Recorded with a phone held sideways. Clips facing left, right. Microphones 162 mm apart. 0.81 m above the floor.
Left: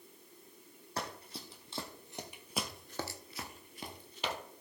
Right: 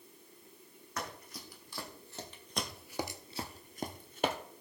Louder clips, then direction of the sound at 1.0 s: Left 1 dB; 30° left (ahead or behind).